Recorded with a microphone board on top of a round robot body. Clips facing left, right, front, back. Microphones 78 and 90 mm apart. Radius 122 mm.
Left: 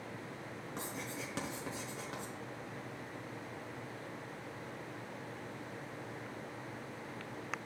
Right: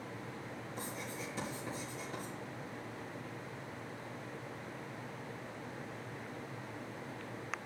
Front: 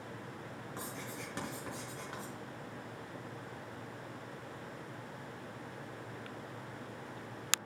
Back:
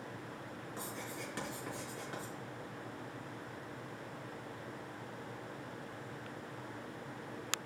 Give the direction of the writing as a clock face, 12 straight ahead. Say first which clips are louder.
Left 1 dB, even; 10 o'clock.